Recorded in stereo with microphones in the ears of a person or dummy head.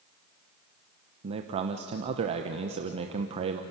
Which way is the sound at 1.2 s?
30° right (ahead or behind).